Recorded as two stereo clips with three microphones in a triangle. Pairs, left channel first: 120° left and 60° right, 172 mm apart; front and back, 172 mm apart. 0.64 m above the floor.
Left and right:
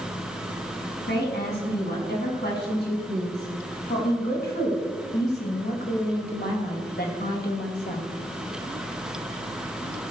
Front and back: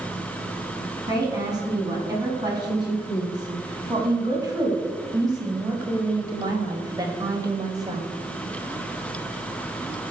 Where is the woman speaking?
115° left, 6.5 m.